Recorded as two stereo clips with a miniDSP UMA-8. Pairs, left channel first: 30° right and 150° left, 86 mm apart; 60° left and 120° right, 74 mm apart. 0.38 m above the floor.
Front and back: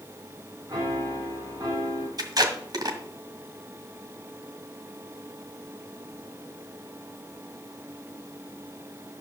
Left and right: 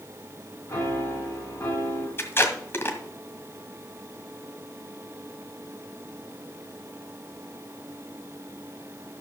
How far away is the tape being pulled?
About 1.9 m.